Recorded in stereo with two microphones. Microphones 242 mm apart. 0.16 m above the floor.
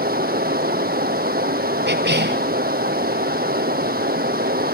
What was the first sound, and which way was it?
Running water, 40° right (ahead or behind).